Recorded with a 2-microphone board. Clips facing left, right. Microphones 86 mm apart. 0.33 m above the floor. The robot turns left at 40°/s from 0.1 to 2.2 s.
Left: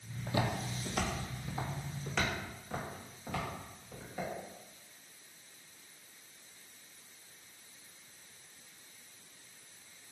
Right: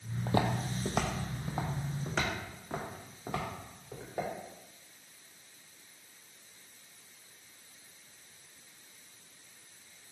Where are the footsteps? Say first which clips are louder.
Right 4 dB; 45° right (ahead or behind), 0.6 m; by 4.3 s 35° right (ahead or behind), 2.5 m.